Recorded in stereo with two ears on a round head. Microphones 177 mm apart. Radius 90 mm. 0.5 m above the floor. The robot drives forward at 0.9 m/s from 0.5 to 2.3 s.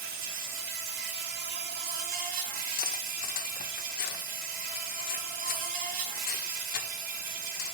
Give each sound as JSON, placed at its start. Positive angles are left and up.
{"t": 0.0, "sound": "an insect", "side_deg": -45, "distance_m": 1.6}
{"t": 2.8, "sound": "cutlery clinking", "side_deg": 45, "distance_m": 0.5}